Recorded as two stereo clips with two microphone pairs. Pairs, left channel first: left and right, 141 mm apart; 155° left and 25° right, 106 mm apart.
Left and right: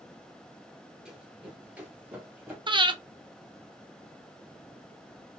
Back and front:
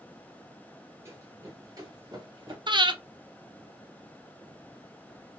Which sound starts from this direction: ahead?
Running footsteps, at 1.1 s.